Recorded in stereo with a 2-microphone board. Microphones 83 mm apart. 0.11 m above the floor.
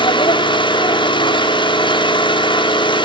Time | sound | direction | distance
0.0 | an engine running | 70° left (ahead or behind) | 5.5 m